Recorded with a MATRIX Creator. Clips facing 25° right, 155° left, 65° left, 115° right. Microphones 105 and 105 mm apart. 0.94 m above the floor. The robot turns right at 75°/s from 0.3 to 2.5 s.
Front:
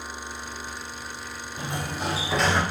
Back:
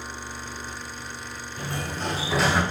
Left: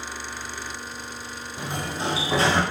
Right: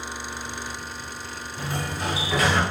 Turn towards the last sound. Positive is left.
turn(degrees=80)